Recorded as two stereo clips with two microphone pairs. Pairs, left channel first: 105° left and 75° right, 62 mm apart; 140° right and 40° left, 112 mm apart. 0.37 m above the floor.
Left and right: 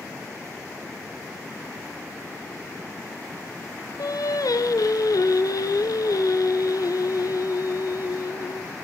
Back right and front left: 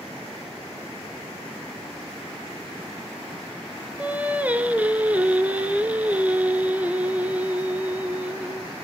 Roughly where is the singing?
Behind left.